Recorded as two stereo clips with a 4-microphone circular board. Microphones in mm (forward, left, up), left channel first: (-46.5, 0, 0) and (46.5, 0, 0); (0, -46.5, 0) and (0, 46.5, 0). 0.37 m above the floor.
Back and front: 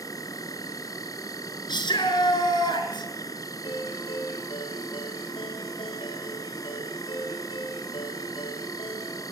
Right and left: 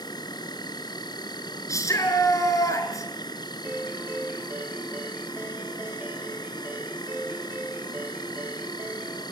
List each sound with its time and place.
0.0 s an insect: 130° right, 2.5 m
1.7 s a shout: 145° right, 5.5 m
3.6 s a ringtone: 160° left, 5.5 m